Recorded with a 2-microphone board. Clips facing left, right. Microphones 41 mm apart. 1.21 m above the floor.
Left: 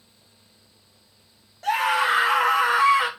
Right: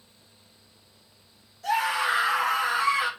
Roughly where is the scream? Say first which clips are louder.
Left 4 dB; left.